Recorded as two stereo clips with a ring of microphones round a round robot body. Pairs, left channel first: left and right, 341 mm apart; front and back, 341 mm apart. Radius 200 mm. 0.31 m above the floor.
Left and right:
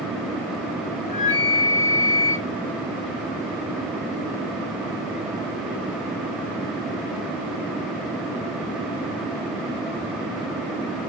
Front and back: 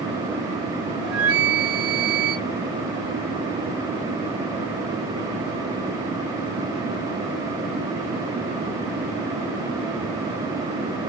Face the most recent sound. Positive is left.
turn(degrees=160)